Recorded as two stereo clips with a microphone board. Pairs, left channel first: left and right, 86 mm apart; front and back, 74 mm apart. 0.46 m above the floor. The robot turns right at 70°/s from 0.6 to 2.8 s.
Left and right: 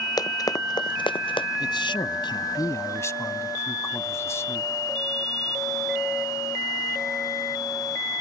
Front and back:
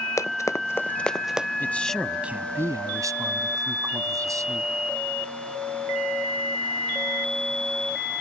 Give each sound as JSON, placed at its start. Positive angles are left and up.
{"t": 0.2, "sound": "running footsteps", "azimuth_deg": 50}
{"t": 1.6, "sound": "a man speaking", "azimuth_deg": 60}